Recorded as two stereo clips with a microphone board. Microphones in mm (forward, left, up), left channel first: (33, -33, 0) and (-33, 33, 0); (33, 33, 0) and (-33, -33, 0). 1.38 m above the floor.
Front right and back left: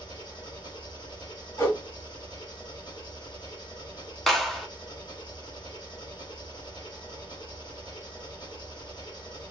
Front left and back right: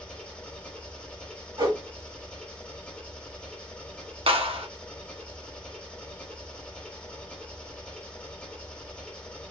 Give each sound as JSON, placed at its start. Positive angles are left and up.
{"t": 0.0, "sound": "an engine running", "azimuth_deg": -30, "distance_m": 1.3}
{"t": 1.6, "sound": "a whoosh", "azimuth_deg": -100, "distance_m": 1.9}
{"t": 4.3, "sound": "a clap", "azimuth_deg": -130, "distance_m": 0.8}